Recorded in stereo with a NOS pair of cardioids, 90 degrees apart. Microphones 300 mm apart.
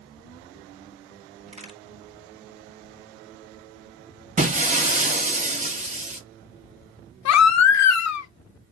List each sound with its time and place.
1.5 s a crack: 20° right, 2 m
4.4 s breaking glass: 25° right, 1.6 m
7.2 s a baby crying: 65° left, 0.9 m